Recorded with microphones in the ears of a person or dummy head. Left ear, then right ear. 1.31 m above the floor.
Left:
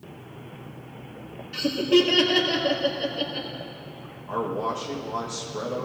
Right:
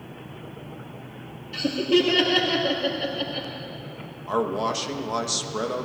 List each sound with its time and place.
1.5 s laughter: 10° left (ahead or behind), 2 m
4.3 s a man speaking: 85° right, 1.3 m